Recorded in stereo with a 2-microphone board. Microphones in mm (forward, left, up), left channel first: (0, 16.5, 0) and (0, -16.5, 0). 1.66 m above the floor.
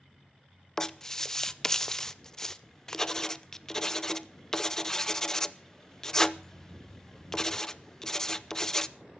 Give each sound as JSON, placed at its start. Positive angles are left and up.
{"t": 0.8, "sound": "writing", "side_deg": 15, "distance_m": 0.6}